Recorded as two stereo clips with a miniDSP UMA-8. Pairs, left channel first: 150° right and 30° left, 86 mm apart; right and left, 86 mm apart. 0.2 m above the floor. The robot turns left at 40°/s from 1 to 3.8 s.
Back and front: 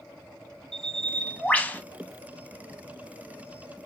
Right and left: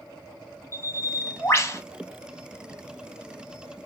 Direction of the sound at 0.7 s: 70° right.